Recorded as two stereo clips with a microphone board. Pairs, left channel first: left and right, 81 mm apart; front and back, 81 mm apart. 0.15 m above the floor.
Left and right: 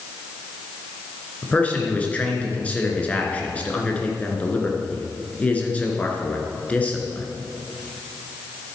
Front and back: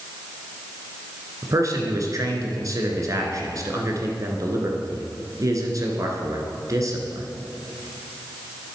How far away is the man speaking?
About 1.5 m.